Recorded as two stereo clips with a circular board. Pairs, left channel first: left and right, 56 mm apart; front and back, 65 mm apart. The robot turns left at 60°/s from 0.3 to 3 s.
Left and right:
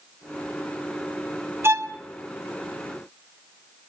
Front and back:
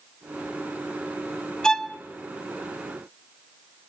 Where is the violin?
75° right, 0.7 m; by 1.9 s 95° right, 0.7 m.